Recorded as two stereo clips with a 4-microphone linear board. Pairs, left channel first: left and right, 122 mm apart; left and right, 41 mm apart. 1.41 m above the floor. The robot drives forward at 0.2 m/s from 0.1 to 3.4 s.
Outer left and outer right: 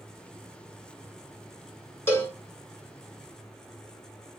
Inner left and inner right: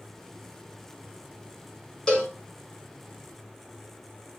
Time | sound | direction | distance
2.1 | a cowbell | 20° left (ahead or behind) | 1.3 m